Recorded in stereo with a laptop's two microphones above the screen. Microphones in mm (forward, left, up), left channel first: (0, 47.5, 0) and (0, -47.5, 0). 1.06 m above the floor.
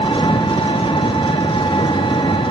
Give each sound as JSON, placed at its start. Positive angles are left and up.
{"t": 0.0, "sound": "an engine running", "side_deg": 60, "distance_m": 0.8}